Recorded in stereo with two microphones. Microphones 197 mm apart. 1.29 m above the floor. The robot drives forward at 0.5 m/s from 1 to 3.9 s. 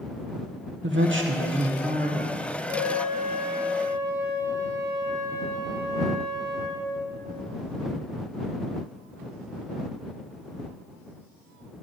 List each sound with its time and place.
0.8 s a woman speaking: 65° right (ahead or behind), 0.6 m; by 2.4 s 40° right (ahead or behind), 0.8 m
2.7 s a flute: 60° right (ahead or behind), 1.9 m; by 6.9 s 50° right (ahead or behind), 2 m